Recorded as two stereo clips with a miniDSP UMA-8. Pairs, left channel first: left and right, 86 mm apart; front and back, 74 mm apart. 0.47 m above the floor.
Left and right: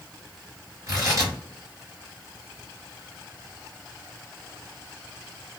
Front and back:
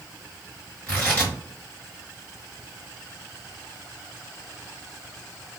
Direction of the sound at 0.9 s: 65° right.